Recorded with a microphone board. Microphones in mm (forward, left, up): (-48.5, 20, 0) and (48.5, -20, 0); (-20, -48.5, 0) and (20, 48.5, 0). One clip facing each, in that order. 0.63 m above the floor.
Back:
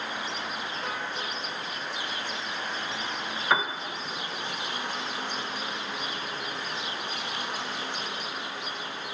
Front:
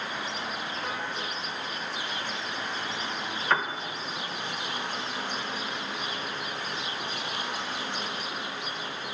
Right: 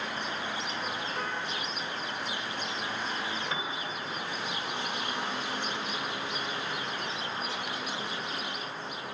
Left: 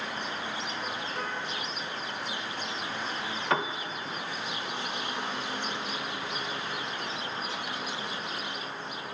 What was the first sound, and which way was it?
A piano, 75° left.